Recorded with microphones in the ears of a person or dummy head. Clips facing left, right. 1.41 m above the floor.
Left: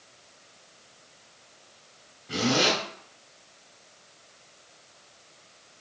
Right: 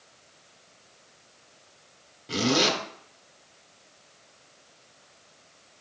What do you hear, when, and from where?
2.3 s a zipper: 45° right (ahead or behind), 0.9 m